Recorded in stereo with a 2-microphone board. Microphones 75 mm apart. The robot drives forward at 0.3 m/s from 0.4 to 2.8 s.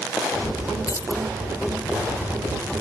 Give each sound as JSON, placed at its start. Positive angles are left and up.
{"t": 0.9, "sound": "keys jangling", "side_deg": 45, "distance_m": 0.8}